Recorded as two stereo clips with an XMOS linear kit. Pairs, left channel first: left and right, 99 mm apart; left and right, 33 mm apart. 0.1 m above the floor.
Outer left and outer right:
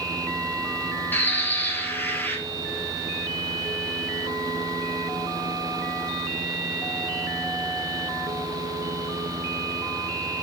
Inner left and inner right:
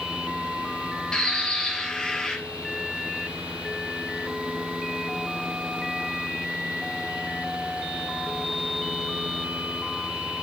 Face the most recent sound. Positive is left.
turn(degrees=20)  # may be behind; listen again after turning